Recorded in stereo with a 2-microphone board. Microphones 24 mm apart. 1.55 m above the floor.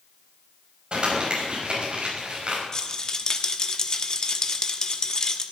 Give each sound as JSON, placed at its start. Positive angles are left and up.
{"t": 0.9, "sound": "crumpling", "side_deg": -45, "distance_m": 5.0}
{"t": 2.7, "sound": "a rattle", "side_deg": 30, "distance_m": 1.2}